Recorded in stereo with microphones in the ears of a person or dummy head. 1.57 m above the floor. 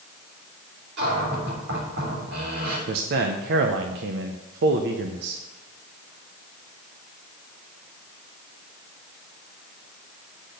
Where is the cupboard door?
60° right (ahead or behind), 4 m.